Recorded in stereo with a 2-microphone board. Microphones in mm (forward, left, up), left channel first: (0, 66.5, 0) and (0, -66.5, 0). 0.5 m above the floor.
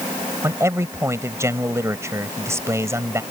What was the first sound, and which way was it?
A man speaking, 20° right (ahead or behind).